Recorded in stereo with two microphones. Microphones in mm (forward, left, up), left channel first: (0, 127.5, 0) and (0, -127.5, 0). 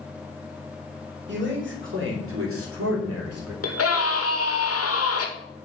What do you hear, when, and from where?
1.3 s a man speaking: 45° right (ahead or behind), 3 m; by 3.5 s 70° right (ahead or behind), 2.5 m
3.6 s a scream: 65° left (ahead or behind), 1.7 m